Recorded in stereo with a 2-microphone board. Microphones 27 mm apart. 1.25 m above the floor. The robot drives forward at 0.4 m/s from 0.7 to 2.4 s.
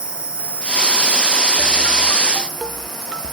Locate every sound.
0.0 s an insect: 50° right (ahead or behind), 1.4 m; by 3.3 s 35° right (ahead or behind), 1.9 m